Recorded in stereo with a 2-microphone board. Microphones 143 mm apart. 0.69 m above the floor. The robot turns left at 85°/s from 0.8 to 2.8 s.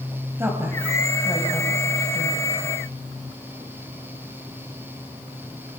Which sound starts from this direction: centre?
A woman speaking, at 0.4 s.